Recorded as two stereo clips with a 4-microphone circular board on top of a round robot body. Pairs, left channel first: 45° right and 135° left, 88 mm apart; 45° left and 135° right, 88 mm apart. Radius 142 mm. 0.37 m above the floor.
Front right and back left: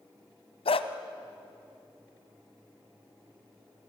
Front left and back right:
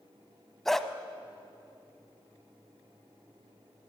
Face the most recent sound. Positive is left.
turn(degrees=-40)